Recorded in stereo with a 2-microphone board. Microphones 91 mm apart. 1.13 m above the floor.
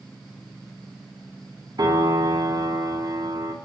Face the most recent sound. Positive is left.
turn(degrees=-60)  # may be behind; listen again after turning